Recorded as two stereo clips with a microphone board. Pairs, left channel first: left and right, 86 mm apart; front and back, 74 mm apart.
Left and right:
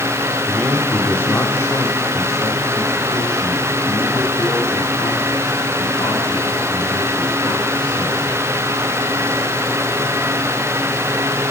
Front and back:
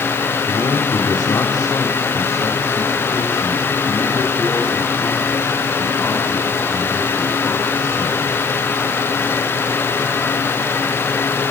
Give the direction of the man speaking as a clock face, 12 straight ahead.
12 o'clock.